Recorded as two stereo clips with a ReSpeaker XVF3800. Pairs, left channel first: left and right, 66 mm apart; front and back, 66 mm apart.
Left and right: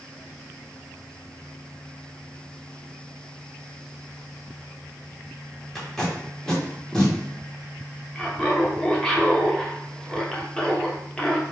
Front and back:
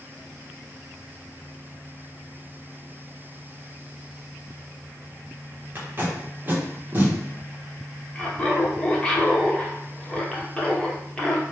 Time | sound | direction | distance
5.8 | tape being pulled | 165° left | 0.9 m
8.2 | laughter | 35° left | 0.7 m